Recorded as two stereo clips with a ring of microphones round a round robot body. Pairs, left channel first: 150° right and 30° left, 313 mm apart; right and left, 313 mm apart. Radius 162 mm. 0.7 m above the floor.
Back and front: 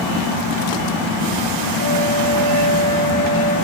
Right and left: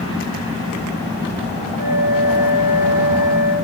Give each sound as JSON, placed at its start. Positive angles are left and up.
{"t": 1.8, "sound": "a flute", "azimuth_deg": 50, "distance_m": 6.0}